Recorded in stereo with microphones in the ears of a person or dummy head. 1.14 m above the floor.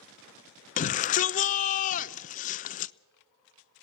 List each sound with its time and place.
0.8 s a shout: 40° left (ahead or behind), 0.8 m